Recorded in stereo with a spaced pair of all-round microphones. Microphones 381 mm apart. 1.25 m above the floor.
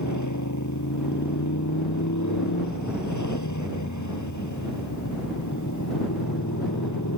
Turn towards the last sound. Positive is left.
turn(degrees=50)  # may be behind; listen again after turning